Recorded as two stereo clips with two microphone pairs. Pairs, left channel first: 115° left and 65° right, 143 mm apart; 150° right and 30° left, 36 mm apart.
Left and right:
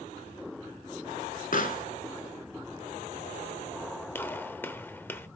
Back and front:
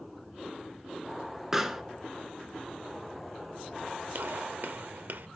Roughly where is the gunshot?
Ahead left.